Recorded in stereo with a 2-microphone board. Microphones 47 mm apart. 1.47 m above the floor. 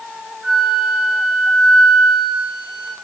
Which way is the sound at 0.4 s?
45° right (ahead or behind).